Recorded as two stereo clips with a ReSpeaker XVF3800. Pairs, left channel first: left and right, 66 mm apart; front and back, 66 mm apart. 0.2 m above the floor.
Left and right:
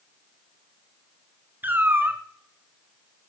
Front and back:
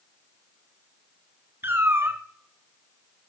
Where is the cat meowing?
140° right, 0.9 m.